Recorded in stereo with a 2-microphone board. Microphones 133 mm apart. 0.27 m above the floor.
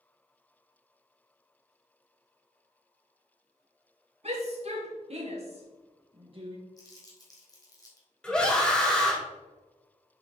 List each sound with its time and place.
4.2 s a shout: 55° right (ahead or behind), 2.5 m; by 6.6 s 40° right (ahead or behind), 1.5 m
6.8 s crumpling: 30° left (ahead or behind), 2 m
8.2 s a scream: 5° left (ahead or behind), 1.3 m